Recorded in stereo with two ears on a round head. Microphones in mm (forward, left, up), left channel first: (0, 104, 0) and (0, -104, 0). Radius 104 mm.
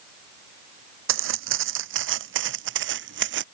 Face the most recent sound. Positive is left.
turn(degrees=-50)  # may be behind; listen again after turning